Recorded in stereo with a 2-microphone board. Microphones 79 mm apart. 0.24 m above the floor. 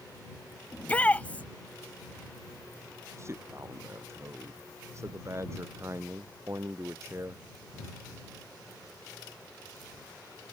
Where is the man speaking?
35° right (ahead or behind).